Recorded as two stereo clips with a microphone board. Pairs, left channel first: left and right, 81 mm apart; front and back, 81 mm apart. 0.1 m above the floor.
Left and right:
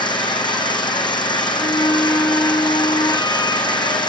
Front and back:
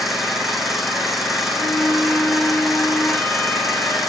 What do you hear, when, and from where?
0.0 s an engine running: 90° left, 1.7 m
1.6 s a flute: 70° left, 2.5 m